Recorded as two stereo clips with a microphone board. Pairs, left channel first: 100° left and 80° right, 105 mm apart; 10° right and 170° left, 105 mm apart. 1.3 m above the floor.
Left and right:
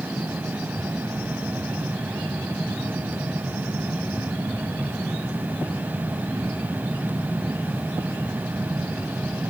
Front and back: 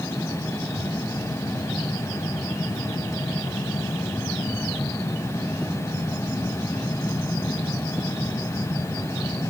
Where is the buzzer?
No buzzer in this recording.